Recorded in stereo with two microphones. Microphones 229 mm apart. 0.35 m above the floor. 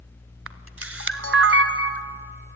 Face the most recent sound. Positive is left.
turn(degrees=-70)  # may be behind; listen again after turning